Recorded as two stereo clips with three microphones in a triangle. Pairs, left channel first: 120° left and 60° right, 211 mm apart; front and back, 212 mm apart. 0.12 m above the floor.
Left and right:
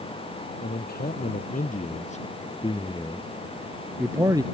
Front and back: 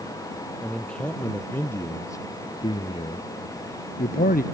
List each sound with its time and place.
0.6 s a man speaking: 85° left; by 4.4 s straight ahead